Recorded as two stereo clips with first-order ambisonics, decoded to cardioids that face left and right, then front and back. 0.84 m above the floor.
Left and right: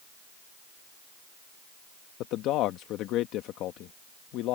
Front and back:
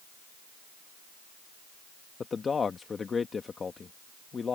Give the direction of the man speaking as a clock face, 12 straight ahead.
10 o'clock.